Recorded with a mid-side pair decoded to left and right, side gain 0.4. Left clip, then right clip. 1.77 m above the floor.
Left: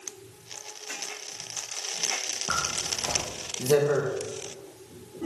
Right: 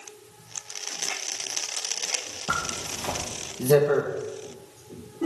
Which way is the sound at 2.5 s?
25° right.